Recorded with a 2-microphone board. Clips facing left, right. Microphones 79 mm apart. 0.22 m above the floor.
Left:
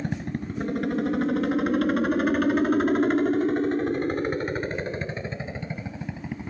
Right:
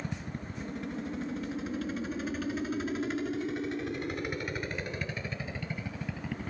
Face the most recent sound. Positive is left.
turn(degrees=20)  # may be behind; listen again after turning